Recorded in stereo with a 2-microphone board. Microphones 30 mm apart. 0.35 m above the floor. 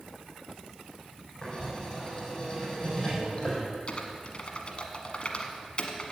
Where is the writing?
20° left (ahead or behind), 4.5 m.